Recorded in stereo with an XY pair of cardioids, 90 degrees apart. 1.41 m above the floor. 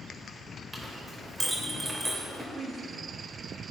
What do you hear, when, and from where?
0.7 s a clink: 25° right, 3.5 m
2.5 s a woman speaking: 40° right, 3 m